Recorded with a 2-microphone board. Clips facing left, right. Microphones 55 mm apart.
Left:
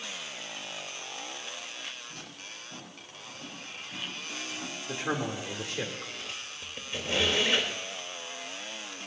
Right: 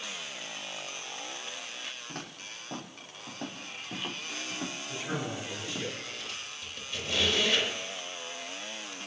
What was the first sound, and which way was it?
Footsteps, 60° right (ahead or behind).